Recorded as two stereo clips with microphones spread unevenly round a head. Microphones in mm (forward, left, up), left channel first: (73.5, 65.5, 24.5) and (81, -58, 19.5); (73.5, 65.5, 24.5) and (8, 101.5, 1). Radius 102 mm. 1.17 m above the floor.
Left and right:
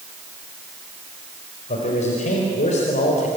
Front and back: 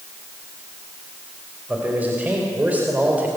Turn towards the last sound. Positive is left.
turn(degrees=80)